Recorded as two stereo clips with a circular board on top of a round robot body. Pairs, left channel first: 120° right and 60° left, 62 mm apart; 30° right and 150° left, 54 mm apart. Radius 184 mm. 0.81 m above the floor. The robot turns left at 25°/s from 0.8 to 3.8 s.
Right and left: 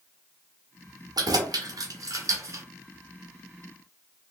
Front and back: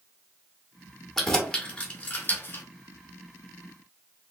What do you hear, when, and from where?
1.2 s keys jangling: 55° left, 0.9 m; by 2.6 s 20° left, 0.9 m